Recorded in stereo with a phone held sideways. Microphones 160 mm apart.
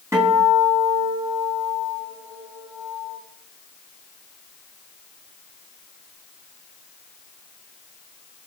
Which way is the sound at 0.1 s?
20° right (ahead or behind).